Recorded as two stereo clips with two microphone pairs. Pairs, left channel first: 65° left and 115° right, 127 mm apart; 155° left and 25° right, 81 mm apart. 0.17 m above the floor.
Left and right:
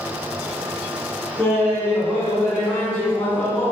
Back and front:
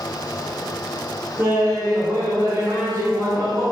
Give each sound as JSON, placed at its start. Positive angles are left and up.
{"t": 1.4, "sound": "laughter", "azimuth_deg": -10, "distance_m": 1.2}